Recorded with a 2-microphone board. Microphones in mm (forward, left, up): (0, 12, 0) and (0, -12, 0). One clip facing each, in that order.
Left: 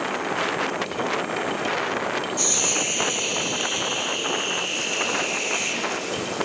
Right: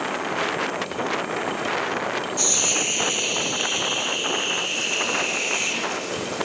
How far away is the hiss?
About 1.9 m.